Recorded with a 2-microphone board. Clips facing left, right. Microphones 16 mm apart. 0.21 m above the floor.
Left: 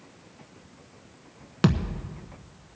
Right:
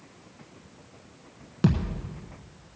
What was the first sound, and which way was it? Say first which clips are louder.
A thud: left 1 dB; 25° left (ahead or behind).